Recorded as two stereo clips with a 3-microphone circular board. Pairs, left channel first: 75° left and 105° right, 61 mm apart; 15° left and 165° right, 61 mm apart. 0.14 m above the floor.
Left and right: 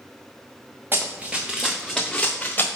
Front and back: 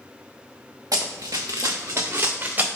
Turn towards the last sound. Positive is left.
turn(degrees=135)